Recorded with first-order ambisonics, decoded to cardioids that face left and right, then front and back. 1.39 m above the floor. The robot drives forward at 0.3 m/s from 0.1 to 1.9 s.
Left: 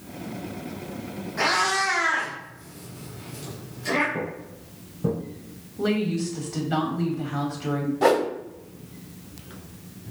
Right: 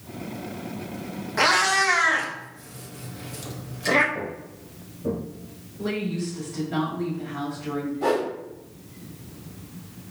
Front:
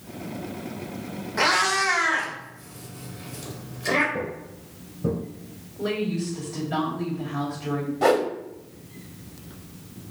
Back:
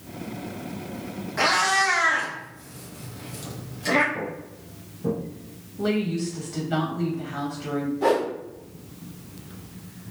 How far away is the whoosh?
About 0.6 m.